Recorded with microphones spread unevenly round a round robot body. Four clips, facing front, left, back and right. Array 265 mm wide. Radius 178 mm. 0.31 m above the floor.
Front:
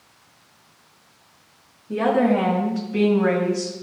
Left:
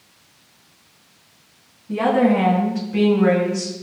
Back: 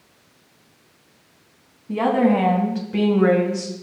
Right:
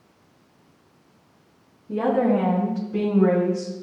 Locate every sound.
1.9 s a woman speaking: 155° left, 4 m; by 3.7 s straight behind, 2.0 m